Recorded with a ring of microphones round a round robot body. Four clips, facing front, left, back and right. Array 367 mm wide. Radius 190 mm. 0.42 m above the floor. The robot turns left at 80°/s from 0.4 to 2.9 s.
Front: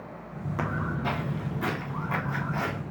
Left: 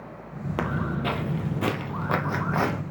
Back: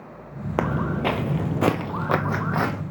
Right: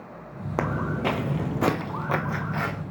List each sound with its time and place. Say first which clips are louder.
0.6 s footsteps: right 2 dB, back 7 dB; 170° right, 0.6 m; by 2.8 s 130° left, 1.1 m